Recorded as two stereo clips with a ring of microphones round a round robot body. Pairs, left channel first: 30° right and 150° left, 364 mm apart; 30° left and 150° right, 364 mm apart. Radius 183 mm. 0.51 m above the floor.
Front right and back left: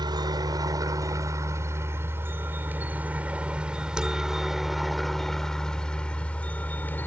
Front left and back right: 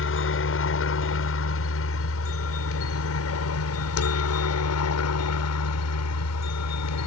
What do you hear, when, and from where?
0.0 s a helicopter: 75° left; by 7.1 s 55° left